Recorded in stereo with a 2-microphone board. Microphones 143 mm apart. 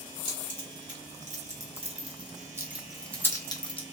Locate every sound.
0.2 s keys jangling: 65° right (ahead or behind), 1.8 m; by 3.8 s 40° left (ahead or behind), 0.8 m